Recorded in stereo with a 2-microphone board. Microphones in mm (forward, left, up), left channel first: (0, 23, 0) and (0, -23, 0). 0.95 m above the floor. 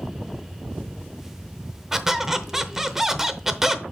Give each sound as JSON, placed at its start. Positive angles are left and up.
{"t": 1.9, "sound": "a squeak", "side_deg": -5, "distance_m": 0.7}